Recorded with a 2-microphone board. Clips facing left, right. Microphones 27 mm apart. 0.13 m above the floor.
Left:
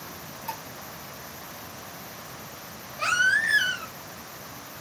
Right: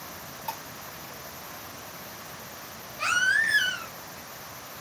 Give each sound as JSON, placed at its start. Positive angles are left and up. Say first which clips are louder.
{"t": 0.5, "sound": "dishes clattering", "louder": "even", "side_deg": -45, "distance_m": 3.5}
{"t": 3.0, "sound": "a baby crying", "louder": "left 1 dB", "side_deg": 0, "distance_m": 1.8}